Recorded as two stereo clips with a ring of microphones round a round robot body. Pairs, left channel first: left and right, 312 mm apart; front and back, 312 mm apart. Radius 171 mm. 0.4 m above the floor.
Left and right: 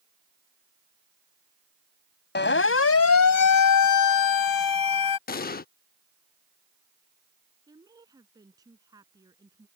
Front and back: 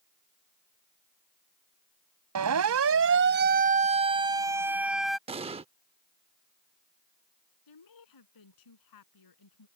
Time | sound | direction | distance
2.4 | a siren | 145° left | ?
5.3 | an explosion | 125° left | ?
7.7 | a woman speaking | 10° right | ?